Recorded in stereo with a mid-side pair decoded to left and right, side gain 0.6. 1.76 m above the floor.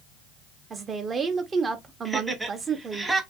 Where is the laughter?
10° right, 1.1 m.